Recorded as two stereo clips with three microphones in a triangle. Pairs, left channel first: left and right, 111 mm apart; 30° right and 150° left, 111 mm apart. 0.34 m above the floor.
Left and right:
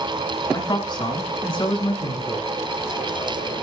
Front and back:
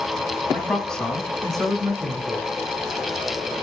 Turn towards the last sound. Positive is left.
turn(degrees=65)